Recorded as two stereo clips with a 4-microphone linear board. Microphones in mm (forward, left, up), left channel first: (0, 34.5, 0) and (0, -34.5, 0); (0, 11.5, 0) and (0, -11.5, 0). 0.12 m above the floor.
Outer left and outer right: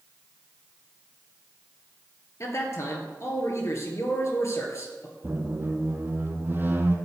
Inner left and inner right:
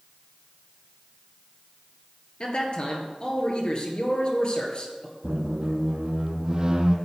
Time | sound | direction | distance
2.4 | a man speaking | 45° left (ahead or behind) | 2.5 m
5.2 | a squeak | 30° right (ahead or behind) | 1.2 m